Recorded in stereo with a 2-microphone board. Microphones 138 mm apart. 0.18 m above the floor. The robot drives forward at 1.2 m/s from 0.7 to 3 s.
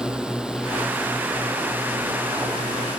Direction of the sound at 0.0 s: 5° right (ahead or behind).